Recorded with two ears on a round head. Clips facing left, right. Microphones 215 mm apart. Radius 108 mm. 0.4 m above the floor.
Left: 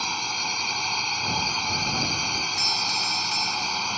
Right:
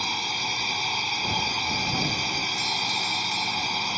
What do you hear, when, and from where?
0.0 s a drone: 5° right (ahead or behind)
2.6 s a doorbell: 20° left (ahead or behind)